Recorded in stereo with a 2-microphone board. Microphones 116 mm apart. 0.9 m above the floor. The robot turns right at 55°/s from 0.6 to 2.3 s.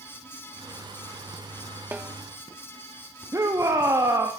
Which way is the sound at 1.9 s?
20° right (ahead or behind).